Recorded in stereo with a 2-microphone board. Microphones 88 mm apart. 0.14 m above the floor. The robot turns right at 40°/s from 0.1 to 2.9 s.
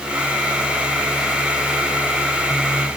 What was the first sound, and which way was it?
Only background noise.